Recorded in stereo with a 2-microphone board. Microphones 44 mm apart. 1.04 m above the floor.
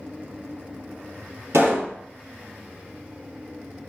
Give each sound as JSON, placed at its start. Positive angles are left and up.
{"t": 1.5, "sound": "a pop", "side_deg": -80, "distance_m": 0.8}